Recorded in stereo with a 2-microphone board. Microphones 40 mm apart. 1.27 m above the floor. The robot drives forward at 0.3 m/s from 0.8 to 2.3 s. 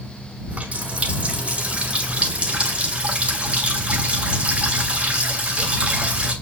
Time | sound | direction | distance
0.5 | a running tap | 35° right (ahead or behind) | 2.5 m